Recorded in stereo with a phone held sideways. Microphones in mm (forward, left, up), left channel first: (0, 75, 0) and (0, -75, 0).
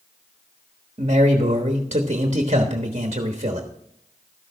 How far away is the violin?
No violin in this recording.